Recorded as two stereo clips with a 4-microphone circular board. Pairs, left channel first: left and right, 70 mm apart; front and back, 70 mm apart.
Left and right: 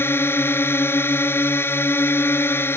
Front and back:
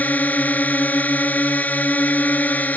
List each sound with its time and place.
0.0 s a drone: 55° left